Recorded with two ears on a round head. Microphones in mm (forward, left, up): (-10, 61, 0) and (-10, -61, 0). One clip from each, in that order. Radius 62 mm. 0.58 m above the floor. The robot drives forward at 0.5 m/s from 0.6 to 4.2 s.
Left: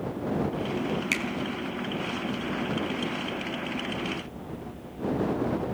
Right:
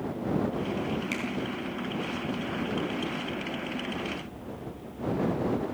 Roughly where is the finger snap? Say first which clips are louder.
Left 9 dB; left.